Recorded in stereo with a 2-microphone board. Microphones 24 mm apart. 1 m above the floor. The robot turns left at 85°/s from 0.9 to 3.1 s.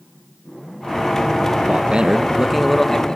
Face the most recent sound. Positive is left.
turn(degrees=140)